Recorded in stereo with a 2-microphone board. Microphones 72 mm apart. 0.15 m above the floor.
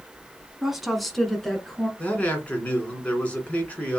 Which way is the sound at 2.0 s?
20° left (ahead or behind).